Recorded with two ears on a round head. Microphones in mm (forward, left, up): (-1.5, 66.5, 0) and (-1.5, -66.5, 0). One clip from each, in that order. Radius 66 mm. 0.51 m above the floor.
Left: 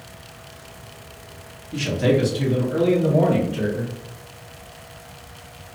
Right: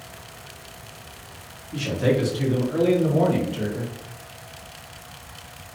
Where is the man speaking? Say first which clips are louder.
Left 2 dB; 15° left (ahead or behind), 0.7 m; by 3.9 s 35° right (ahead or behind), 1.4 m.